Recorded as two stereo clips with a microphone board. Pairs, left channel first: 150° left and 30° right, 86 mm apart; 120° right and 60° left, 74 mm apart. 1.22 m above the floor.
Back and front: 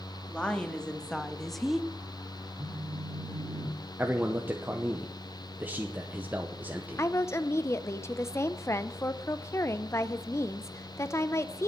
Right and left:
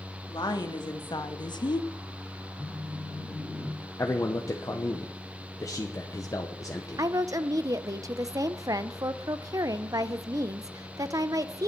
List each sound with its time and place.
0.3 s a woman speaking: 135° right, 1.9 m; by 1.9 s 115° right, 0.6 m
2.6 s a phone buzzing: 60° right, 3 m
4.0 s a man speaking: 95° right, 0.9 m
7.0 s a woman speaking: 95° left, 0.7 m